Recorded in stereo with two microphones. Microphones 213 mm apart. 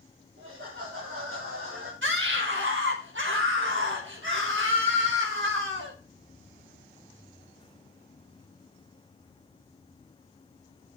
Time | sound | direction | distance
0.4 | laughter | 70° right (ahead or behind) | 3.5 m
2.0 | a scream | 65° right (ahead or behind) | 4 m